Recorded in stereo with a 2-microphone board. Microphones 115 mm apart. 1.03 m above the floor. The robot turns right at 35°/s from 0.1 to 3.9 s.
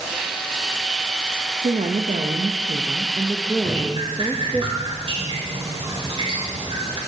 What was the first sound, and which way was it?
A woman speaking, 90° right.